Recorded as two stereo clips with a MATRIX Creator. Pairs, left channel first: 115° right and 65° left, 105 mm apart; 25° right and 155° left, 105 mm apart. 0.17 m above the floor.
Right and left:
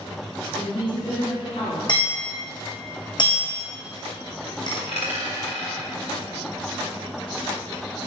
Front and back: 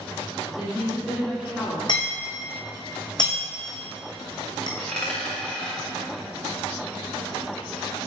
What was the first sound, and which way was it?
A woman speaking, 125° right.